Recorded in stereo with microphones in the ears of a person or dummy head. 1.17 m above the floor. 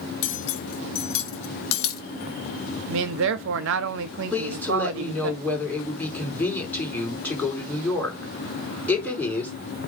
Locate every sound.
0.2 s cutlery clinking: 70° left (ahead or behind), 1.1 m
2.9 s a man speaking: 65° right (ahead or behind), 1.0 m
4.3 s a woman speaking: 10° left (ahead or behind), 4.5 m